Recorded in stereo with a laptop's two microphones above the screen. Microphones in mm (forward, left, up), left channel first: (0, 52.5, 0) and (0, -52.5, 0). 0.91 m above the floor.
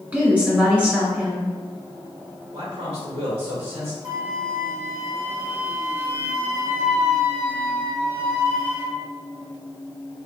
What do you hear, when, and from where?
0.1 s a woman speaking: 15° right (ahead or behind), 2.0 m
2.5 s a man speaking: 70° right (ahead or behind), 1.9 m
4.0 s a flute: 30° right (ahead or behind), 1.3 m